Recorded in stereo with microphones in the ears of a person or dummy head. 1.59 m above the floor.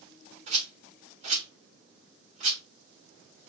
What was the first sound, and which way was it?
A rattle, 35° right (ahead or behind).